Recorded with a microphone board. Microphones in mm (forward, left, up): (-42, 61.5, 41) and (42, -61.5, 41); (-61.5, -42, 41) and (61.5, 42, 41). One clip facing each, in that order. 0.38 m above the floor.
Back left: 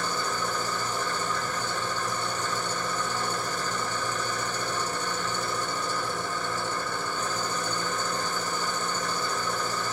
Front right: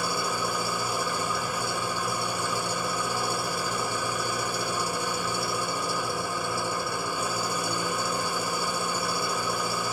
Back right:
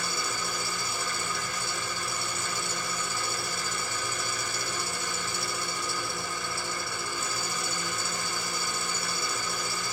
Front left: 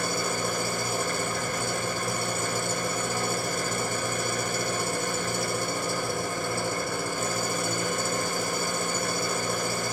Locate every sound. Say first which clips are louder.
0.0 s an engine running: front right 1 dB, front left 6 dB; 20° left, 1.7 m